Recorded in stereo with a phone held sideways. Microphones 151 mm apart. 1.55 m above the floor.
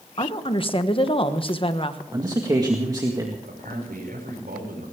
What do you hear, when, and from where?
0.2 s a woman speaking: 35° left (ahead or behind), 1.2 m
2.1 s a man speaking: 25° right (ahead or behind), 1.9 m
3.4 s a man speaking: 85° right, 7 m